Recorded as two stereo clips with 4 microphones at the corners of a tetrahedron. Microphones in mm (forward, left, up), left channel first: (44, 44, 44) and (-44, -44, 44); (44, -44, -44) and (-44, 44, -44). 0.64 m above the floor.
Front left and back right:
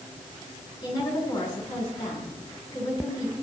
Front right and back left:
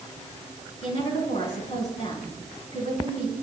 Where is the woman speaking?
15° right, 8 m.